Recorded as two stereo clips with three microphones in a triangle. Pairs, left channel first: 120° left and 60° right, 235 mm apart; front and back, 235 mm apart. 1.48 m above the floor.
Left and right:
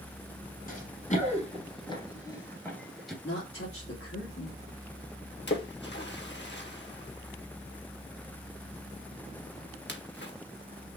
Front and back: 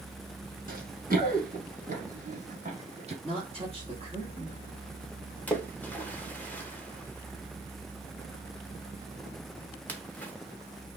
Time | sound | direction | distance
0.7 | running footsteps | 150° left | 2 m
3.2 | a woman speaking | 120° left | 2.5 m
5.5 | a splash | 80° left | 1.2 m